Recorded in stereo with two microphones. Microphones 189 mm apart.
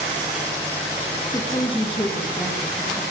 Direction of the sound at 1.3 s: 25° left (ahead or behind).